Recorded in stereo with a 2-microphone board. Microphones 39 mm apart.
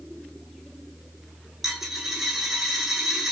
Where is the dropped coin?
10° right (ahead or behind), 1.4 m.